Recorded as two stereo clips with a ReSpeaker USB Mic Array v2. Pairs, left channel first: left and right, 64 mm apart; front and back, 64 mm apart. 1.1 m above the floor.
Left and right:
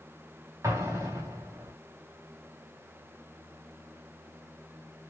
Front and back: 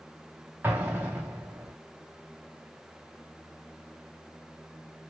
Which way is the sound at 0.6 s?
115° right.